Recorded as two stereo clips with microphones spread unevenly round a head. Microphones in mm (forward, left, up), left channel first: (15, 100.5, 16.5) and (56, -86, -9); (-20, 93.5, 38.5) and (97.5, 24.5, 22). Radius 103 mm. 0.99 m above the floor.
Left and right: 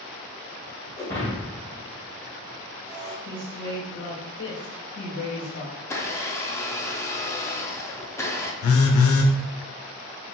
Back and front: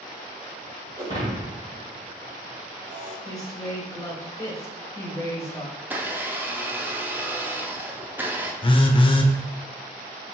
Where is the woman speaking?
85° left, 1.7 m.